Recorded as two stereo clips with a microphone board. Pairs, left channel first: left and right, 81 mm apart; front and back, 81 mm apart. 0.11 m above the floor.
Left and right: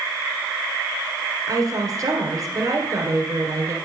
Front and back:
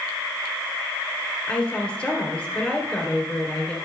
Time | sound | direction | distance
1.5 | a woman speaking | 70° right | 2.5 m